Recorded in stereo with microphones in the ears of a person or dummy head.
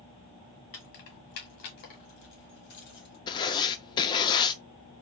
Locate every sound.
0.7 s keys jangling: 50° left (ahead or behind), 1.1 m; by 3.2 s 60° left (ahead or behind), 2 m
3.3 s writing: 30° left (ahead or behind), 0.5 m